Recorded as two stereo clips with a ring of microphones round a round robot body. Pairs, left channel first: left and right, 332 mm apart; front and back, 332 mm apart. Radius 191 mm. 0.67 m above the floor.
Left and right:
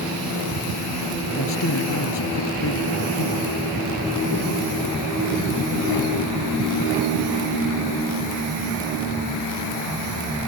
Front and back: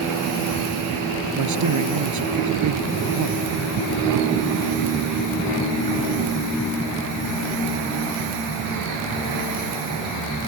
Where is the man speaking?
145° left.